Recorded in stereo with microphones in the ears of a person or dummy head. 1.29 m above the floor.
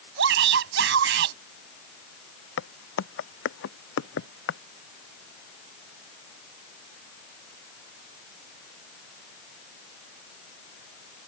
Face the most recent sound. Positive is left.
turn(degrees=80)